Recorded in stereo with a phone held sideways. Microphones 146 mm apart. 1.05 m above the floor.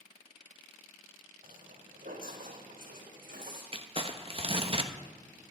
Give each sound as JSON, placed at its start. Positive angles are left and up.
{"t": 1.4, "sound": "footsteps", "side_deg": -70, "distance_m": 3.0}
{"t": 3.7, "sound": "crumpling", "side_deg": -40, "distance_m": 1.0}